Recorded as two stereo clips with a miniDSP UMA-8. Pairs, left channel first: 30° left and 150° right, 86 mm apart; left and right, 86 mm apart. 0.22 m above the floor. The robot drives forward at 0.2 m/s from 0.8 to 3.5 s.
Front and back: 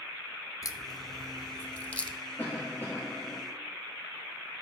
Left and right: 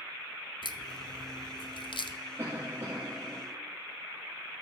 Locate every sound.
0.6 s a crack: 80° left, 0.5 m; by 2.2 s 110° left, 0.6 m
2.4 s a cough: 35° right, 4.5 m